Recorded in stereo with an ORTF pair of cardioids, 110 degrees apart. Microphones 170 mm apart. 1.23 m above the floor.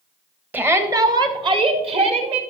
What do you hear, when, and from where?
0.5 s a shout: 10° right, 1.2 m; by 2.4 s 40° right, 2.5 m